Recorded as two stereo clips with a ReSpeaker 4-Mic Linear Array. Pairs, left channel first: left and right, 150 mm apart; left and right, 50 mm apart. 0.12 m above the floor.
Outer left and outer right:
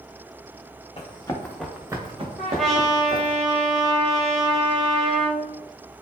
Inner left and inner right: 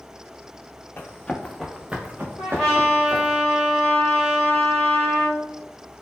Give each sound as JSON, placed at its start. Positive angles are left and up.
{"t": 1.0, "sound": "running footsteps", "side_deg": 40, "distance_m": 0.8}
{"t": 2.4, "sound": "a trumpet", "side_deg": 0, "distance_m": 1.1}